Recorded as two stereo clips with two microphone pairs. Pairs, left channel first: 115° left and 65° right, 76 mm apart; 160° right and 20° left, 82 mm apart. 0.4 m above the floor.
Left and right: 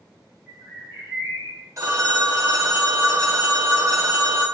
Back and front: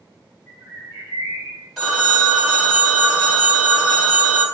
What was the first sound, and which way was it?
A bird, 80° left.